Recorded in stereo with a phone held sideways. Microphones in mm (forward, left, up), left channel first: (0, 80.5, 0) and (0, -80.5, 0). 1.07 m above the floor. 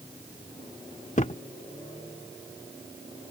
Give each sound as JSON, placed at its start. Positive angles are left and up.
{"t": 1.2, "sound": "a thud", "side_deg": 50}